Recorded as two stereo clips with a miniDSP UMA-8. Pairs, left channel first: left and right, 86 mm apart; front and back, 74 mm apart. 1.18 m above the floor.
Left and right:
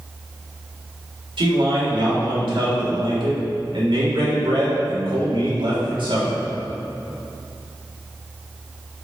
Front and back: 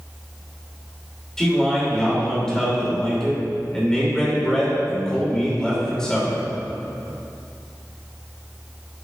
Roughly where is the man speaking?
Right.